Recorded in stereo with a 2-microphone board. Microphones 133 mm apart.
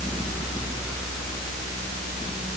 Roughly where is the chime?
No chime in this recording.